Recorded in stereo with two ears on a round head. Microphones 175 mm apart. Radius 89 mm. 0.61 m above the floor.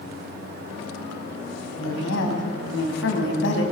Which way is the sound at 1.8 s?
70° left (ahead or behind).